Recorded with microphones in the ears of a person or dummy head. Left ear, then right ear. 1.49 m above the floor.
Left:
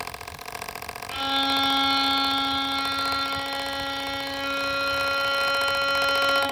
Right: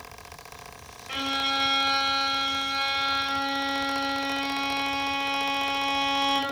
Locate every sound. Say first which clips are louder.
1.1 s a violin: left 3 dB; 35° right (ahead or behind), 0.7 m